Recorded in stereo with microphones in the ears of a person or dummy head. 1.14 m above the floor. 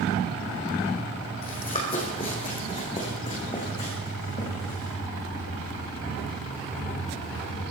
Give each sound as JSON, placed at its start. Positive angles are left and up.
{"t": 1.4, "sound": "running footsteps", "side_deg": 30, "distance_m": 3.0}